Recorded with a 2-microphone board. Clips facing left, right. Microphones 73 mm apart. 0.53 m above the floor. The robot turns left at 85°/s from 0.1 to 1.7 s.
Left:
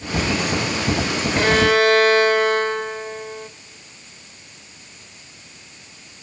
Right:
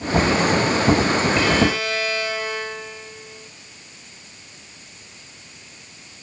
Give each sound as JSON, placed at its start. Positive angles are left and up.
{"t": 1.4, "sound": "a violin", "side_deg": 50, "distance_m": 2.0}